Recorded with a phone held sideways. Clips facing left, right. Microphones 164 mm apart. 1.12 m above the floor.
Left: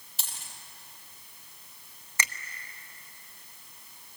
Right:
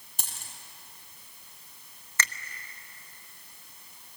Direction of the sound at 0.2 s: 50° right (ahead or behind).